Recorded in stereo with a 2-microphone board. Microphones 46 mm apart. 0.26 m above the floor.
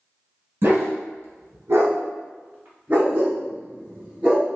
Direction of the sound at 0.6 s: 55° right (ahead or behind).